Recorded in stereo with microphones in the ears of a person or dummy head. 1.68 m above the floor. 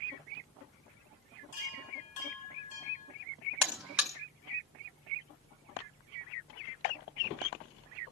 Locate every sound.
1.5 s a chime: 45° left (ahead or behind), 9 m
3.6 s a buzzer: 5° right (ahead or behind), 0.5 m